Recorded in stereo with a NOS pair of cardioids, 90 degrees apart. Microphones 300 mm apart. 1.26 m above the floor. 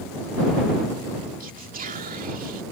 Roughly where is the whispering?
Ahead right.